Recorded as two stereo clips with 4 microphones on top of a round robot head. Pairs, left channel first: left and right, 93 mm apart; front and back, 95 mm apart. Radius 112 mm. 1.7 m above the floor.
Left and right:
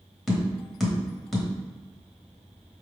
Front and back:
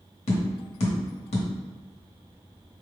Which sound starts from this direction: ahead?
Tapping, at 0.3 s.